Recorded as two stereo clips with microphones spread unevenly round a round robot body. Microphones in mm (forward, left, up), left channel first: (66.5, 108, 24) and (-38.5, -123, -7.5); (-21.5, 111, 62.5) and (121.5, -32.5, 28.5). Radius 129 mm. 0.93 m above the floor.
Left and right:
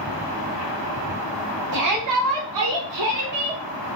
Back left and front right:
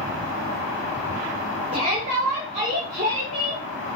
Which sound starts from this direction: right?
A shout, at 1.7 s.